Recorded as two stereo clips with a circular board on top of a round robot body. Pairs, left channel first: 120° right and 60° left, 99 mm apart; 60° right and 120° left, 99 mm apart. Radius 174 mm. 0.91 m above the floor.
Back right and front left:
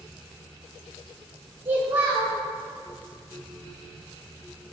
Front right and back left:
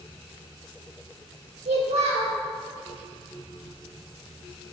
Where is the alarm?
I don't hear an alarm.